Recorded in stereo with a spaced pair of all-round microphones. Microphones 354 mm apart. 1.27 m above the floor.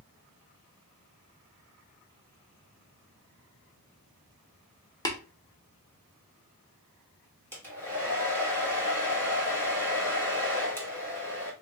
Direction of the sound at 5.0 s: 10° left (ahead or behind).